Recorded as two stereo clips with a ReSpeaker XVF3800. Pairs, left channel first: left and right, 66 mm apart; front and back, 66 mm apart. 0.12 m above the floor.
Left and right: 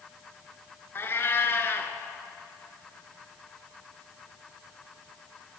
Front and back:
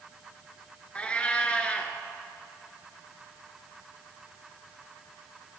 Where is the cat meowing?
60° left, 0.6 m.